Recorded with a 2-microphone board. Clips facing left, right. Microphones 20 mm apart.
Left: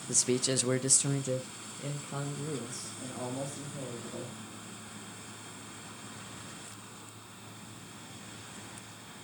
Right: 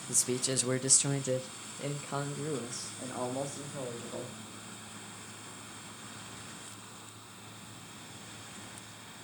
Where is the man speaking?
25° left (ahead or behind), 0.7 m; by 4.4 s 45° right (ahead or behind), 2.5 m.